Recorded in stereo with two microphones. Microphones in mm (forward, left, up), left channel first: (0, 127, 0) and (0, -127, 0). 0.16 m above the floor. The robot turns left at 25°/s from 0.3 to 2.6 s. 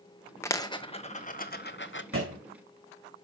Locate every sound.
0.4 s a dropped coin: 10° left (ahead or behind), 0.8 m; by 2.0 s 50° left (ahead or behind), 0.8 m
2.1 s a thud: 60° right (ahead or behind), 4 m; by 2.4 s 65° right (ahead or behind), 4 m